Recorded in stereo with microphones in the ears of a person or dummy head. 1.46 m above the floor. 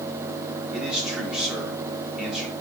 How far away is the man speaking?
About 3.5 m.